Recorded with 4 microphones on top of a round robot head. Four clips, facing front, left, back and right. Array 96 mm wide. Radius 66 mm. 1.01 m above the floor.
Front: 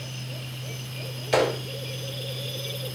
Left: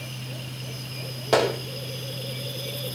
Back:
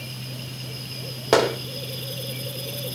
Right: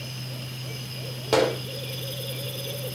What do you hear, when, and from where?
1.3 s a gunshot: straight behind, 3 m